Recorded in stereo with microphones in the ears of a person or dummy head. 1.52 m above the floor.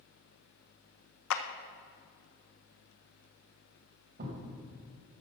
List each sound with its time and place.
1.3 s a clap: 70° left (ahead or behind), 0.9 m
4.2 s a thud: 45° right (ahead or behind), 2.5 m